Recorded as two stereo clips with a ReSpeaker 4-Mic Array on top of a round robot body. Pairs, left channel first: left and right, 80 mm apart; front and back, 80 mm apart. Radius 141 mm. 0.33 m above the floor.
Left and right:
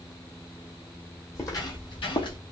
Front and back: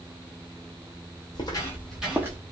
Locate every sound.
1.4 s footsteps: 35° left, 0.9 m; by 2.4 s 120° left, 0.8 m